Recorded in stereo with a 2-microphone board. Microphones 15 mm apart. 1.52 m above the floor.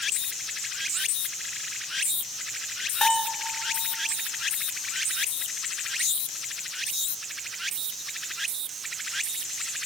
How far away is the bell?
About 2.5 m.